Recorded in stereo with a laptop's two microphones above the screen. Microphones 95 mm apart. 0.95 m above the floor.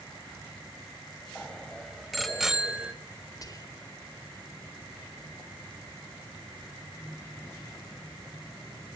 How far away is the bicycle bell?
About 4 m.